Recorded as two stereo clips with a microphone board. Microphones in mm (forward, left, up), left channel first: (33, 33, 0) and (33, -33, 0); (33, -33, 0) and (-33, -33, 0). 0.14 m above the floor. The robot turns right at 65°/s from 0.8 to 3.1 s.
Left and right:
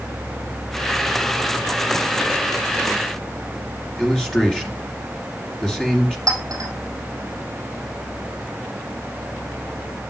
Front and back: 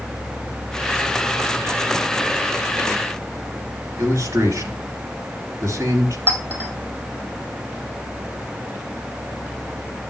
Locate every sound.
4.0 s a man speaking: 165° left, 2.5 m
6.3 s a clink: 115° right, 3 m